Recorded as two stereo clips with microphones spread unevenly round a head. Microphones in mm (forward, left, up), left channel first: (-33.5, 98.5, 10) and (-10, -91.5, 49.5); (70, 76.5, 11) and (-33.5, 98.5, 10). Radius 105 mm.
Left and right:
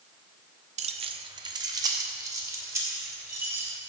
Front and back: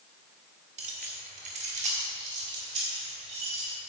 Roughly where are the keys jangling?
Behind right.